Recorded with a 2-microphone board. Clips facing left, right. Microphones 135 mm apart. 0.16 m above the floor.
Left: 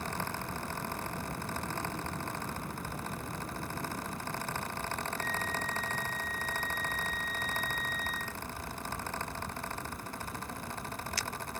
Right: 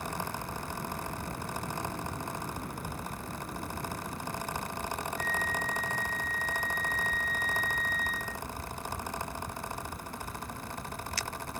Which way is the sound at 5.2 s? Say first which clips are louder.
Right 2 dB; 5° left (ahead or behind).